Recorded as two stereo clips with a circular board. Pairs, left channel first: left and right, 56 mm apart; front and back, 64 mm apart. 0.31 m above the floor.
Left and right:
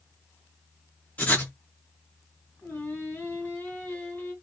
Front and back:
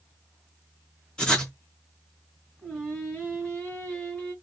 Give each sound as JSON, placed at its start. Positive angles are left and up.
{"t": 1.2, "sound": "writing", "azimuth_deg": 65, "distance_m": 1.3}
{"t": 2.6, "sound": "singing", "azimuth_deg": 60, "distance_m": 1.8}